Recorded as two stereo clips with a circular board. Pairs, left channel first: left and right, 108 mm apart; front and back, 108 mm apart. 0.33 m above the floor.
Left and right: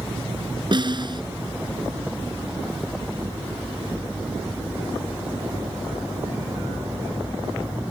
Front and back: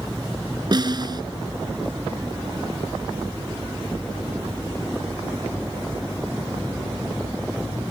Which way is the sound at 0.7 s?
130° right.